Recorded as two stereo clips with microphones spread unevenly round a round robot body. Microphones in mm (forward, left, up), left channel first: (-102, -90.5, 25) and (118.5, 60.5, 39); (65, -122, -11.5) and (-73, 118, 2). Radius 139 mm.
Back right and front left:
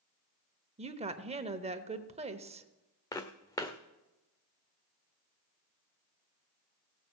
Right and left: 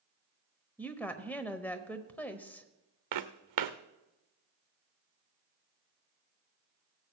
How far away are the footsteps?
About 1.1 m.